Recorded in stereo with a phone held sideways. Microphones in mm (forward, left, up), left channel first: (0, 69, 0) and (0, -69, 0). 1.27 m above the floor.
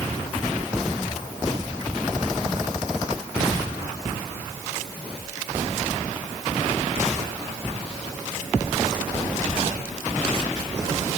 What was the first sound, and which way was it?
Only background noise.